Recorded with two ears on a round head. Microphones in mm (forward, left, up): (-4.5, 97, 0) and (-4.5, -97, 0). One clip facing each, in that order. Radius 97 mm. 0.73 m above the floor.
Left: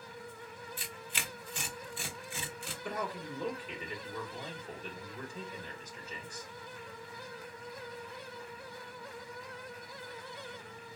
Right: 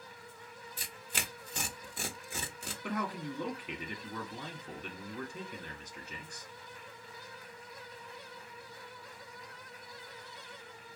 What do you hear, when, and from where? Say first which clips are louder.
0.8 s tearing paper: even; 35° right (ahead or behind), 0.7 m
2.8 s a man speaking: right 2 dB; 50° right (ahead or behind), 1.6 m